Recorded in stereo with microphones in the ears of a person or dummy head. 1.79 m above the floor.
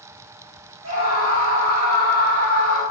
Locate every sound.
0.8 s a scream: 85° right, 1.9 m